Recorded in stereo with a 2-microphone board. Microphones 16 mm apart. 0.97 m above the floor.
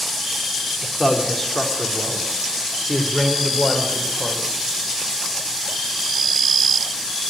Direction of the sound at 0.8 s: 10° left (ahead or behind).